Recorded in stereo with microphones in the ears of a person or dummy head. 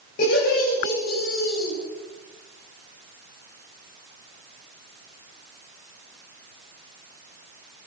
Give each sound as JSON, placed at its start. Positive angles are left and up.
{"t": 0.2, "sound": "laughter", "side_deg": 65, "distance_m": 7.5}